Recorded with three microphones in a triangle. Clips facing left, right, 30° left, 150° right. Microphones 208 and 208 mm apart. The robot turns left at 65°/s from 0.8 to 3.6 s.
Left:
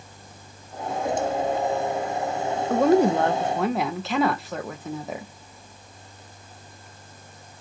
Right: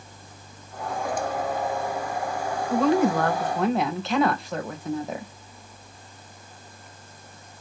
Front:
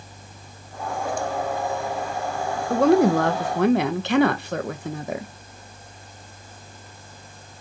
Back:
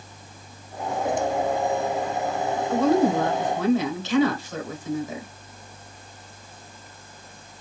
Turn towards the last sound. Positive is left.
turn(degrees=0)